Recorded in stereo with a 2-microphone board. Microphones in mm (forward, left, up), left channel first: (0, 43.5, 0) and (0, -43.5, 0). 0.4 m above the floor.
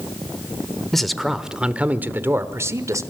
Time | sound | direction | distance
0.9 | a man speaking | 5° left (ahead or behind) | 1.1 m